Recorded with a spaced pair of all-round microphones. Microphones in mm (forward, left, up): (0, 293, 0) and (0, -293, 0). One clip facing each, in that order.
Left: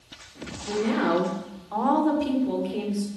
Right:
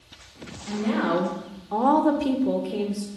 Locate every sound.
0.7 s a woman speaking: 15° right (ahead or behind), 0.8 m; by 3.1 s 55° right (ahead or behind), 0.8 m